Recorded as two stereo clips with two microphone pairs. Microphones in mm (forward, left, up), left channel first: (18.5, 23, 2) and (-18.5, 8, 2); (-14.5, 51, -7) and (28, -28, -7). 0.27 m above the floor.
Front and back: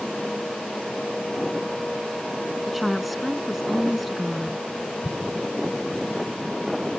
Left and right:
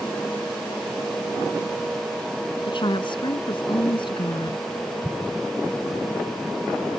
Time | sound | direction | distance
2.7 | a woman speaking | 115° left | ?
5.0 | an explosion | 20° left | ?